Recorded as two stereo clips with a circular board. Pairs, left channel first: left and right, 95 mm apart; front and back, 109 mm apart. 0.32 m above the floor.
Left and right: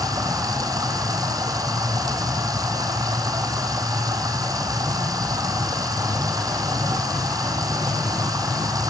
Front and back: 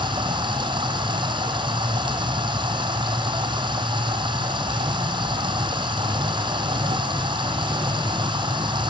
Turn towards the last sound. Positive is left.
turn(degrees=-140)